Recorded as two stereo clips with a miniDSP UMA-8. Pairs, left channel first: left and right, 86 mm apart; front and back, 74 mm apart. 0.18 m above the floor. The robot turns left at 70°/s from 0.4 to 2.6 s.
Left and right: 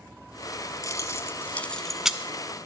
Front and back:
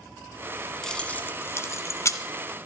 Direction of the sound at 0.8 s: 80° left.